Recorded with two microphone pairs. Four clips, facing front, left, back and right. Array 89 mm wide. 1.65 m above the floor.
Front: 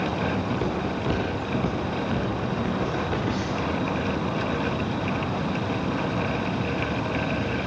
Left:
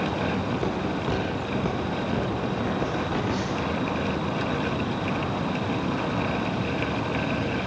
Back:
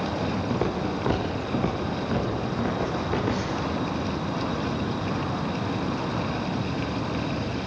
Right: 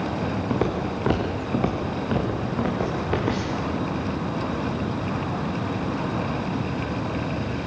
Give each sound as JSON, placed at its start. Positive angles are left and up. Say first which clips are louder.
{"t": 0.5, "sound": "footsteps", "louder": "right 2 dB, even", "azimuth_deg": -105, "distance_m": 5.5}